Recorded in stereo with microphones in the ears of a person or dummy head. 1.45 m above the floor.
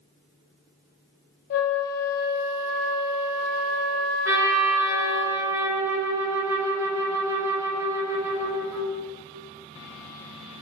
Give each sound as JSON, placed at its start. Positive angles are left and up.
{"t": 1.5, "sound": "a flute", "side_deg": 50, "distance_m": 0.5}
{"t": 4.2, "sound": "a trumpet", "side_deg": -10, "distance_m": 0.5}